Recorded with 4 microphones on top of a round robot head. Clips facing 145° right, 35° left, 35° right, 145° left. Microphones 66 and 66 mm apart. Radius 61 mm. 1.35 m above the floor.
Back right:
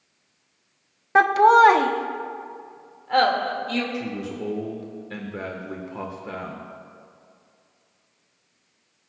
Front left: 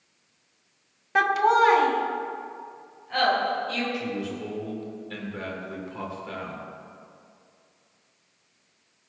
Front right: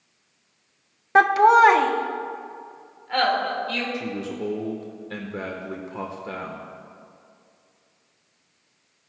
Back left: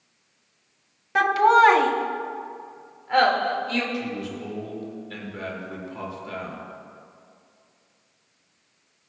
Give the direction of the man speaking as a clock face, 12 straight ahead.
3 o'clock.